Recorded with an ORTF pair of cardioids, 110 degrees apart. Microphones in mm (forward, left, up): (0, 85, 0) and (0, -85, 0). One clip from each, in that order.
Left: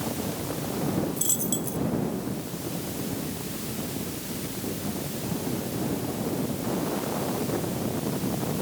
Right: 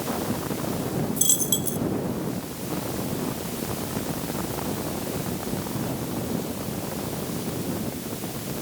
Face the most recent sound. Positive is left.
turn(degrees=-30)